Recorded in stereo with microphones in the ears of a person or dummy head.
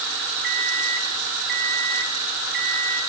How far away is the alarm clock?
About 3.5 m.